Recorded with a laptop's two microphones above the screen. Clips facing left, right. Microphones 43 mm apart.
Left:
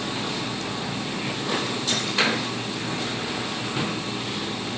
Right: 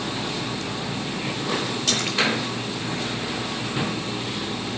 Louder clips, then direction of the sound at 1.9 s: Right 1 dB; 70° right (ahead or behind).